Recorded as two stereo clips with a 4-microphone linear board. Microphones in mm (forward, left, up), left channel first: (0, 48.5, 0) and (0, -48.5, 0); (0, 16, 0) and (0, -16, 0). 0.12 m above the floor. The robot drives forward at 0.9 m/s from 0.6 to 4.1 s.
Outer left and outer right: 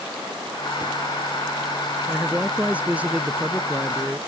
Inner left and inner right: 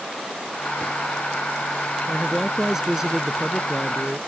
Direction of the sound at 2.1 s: 15° right (ahead or behind).